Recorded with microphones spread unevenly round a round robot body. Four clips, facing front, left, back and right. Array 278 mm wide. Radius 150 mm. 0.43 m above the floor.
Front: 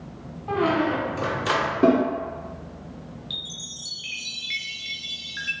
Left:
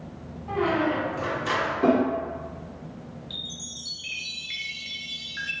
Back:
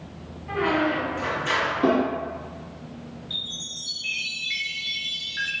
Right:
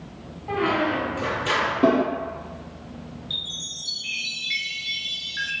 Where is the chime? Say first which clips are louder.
Right 1 dB, back 1 dB; 10° left, 0.7 m.